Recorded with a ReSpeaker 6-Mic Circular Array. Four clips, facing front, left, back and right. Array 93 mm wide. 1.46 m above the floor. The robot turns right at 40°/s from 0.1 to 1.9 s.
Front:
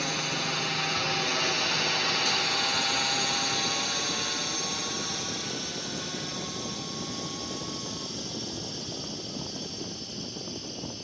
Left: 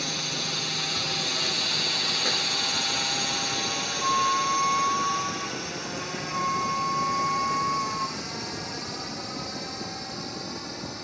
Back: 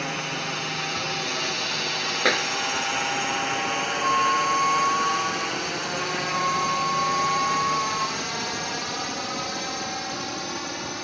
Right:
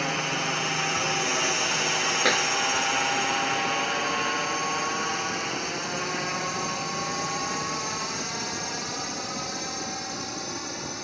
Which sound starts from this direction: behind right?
A clap, at 2.2 s.